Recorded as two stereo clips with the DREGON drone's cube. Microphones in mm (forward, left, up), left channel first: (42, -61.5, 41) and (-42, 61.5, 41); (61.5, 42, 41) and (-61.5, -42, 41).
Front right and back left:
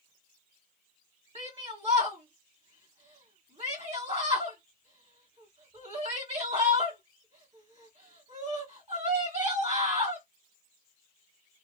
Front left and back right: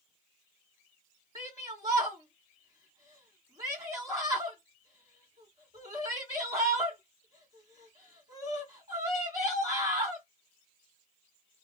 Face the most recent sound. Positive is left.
turn(degrees=160)